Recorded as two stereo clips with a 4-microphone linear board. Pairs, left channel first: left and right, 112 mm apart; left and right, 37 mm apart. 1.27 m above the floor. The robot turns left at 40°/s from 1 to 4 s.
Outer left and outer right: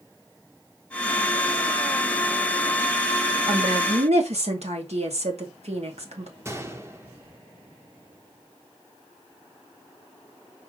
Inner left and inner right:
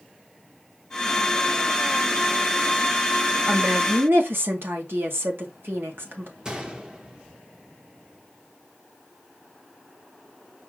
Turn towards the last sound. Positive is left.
turn(degrees=-25)  # may be behind; listen again after turning